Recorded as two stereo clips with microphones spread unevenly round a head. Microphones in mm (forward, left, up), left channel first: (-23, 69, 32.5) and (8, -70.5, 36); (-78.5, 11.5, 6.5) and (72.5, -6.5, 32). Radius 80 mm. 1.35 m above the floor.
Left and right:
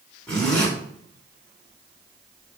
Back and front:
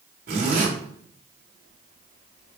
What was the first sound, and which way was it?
A zipper, 20° left.